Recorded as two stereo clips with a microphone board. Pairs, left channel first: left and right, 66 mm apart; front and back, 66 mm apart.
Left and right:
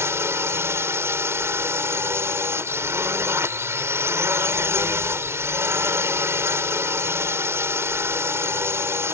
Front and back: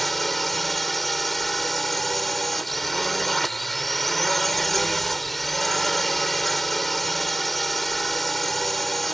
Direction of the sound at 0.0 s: 85° right.